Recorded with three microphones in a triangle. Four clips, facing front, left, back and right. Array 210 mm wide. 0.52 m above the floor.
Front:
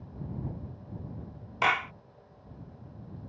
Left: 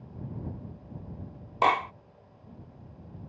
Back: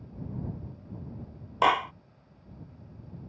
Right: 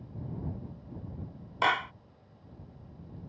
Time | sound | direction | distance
1.6 | a clap | 130° left | ?